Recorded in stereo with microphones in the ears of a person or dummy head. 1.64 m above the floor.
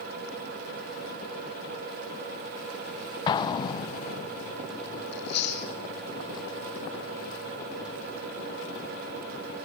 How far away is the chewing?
About 3 m.